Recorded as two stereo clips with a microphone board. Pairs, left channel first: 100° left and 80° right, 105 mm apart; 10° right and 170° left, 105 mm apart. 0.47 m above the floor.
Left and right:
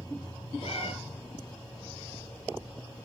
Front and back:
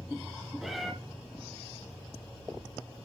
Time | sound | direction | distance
0.6 | a cat meowing | 80° left | 3 m